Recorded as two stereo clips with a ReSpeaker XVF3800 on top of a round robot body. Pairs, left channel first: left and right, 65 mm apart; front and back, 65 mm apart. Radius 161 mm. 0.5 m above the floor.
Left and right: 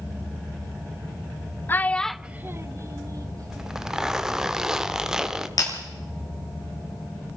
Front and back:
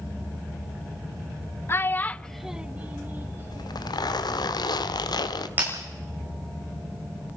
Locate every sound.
1.7 s a child speaking: 40° left, 0.7 m; by 4.0 s 120° right, 1.5 m
3.5 s a zipper: 10° right, 1.1 m
5.6 s breaking glass: 115° left, 8 m